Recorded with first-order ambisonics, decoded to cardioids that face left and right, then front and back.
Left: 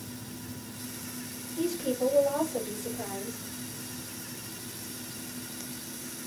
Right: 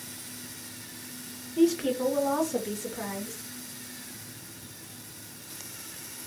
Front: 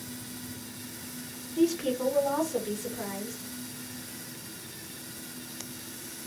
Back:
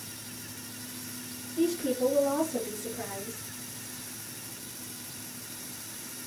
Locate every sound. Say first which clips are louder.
1.6 s a woman speaking: right 5 dB, front 1 dB; 65° right, 1.0 m; by 3.4 s 75° right, 1.9 m